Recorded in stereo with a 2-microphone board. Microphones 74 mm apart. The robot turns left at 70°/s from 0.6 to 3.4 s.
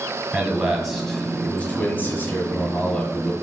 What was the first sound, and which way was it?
A man speaking, 10° right (ahead or behind).